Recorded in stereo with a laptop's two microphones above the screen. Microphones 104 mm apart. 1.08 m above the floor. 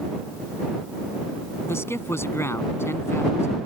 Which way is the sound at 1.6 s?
25° left (ahead or behind).